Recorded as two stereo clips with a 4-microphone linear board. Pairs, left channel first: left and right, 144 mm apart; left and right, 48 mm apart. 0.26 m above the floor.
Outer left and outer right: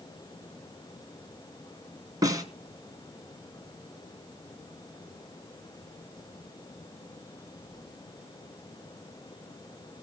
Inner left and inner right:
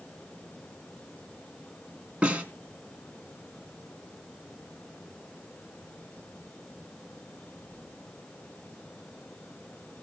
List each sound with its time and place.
2.2 s a snare drum: 25° right (ahead or behind), 2.5 m